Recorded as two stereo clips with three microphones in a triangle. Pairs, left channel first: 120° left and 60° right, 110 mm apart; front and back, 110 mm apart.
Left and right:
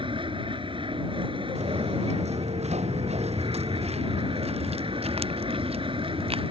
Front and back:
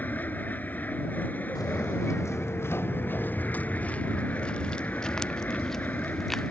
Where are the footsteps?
55° right; by 6.5 s 90° right.